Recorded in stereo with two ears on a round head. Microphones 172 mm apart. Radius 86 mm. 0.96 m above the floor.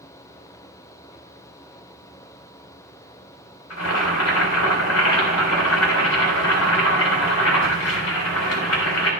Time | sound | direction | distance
3.7 | boiling | 80° left | 3.5 m